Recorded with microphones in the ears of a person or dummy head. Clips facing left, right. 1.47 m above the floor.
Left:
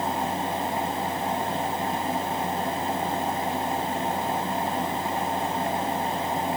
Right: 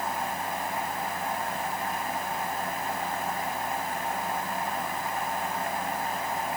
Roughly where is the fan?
Left.